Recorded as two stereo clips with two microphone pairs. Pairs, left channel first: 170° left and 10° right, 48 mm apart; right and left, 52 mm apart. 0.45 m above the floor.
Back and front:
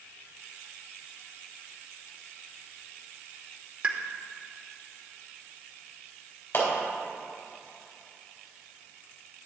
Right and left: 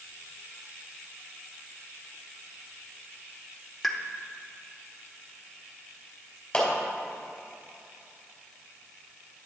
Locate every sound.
3.8 s a pop: 10° right, 0.8 m
6.5 s a clap: 160° right, 2.5 m